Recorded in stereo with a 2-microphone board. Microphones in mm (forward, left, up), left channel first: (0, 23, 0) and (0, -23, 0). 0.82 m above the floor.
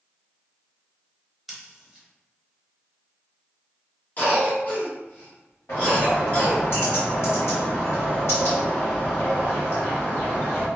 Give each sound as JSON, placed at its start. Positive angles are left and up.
{"t": 1.5, "sound": "scissors", "side_deg": 0, "distance_m": 0.9}
{"t": 4.2, "sound": "a cough", "side_deg": 40, "distance_m": 1.5}
{"t": 5.7, "sound": "a bird", "side_deg": 65, "distance_m": 1.6}